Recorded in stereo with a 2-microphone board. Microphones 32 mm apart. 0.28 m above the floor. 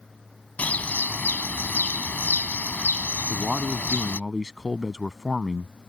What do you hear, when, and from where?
0.6 s a bird: 55° left (ahead or behind)
3.2 s a man speaking: 15° right (ahead or behind)